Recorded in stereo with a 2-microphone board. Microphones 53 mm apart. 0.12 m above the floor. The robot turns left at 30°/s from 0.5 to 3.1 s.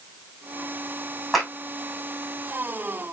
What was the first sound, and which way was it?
A clap, centre (ahead or behind).